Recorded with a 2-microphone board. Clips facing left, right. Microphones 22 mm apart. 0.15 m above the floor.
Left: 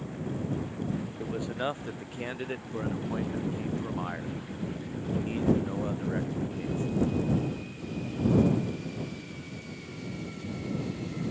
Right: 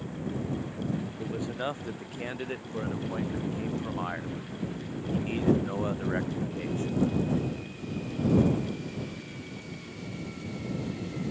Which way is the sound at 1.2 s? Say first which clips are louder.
Left 1 dB; centre (ahead or behind).